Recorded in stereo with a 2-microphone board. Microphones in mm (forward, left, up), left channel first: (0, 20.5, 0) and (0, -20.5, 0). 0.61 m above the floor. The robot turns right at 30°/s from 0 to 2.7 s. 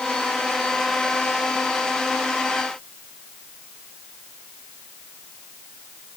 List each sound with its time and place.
Only background noise.